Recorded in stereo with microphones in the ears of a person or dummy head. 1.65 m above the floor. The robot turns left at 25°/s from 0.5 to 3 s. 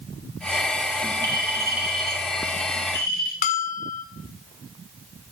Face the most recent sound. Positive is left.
turn(degrees=35)  # may be behind; listen again after turning